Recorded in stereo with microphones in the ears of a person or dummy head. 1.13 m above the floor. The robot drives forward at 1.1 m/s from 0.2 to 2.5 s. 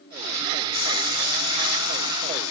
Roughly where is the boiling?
Left.